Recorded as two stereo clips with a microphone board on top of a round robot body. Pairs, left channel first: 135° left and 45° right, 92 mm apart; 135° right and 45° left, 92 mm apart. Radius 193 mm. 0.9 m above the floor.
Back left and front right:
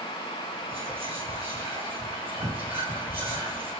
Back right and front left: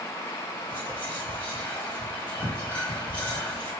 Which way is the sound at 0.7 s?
60° right.